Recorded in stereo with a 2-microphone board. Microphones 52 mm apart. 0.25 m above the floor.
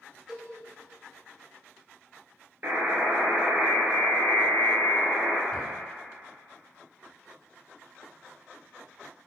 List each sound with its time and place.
0.3 s a cowbell: 10° right (ahead or behind), 0.7 m
2.6 s a buzzer: 45° right (ahead or behind), 0.9 m
5.5 s a cupboard door: 10° left (ahead or behind), 1.5 m